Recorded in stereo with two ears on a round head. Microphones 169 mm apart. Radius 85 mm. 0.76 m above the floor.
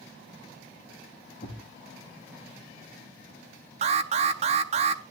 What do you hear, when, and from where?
1.4 s a thud: 50° left (ahead or behind), 9 m
3.8 s an alarm: 35° right (ahead or behind), 0.6 m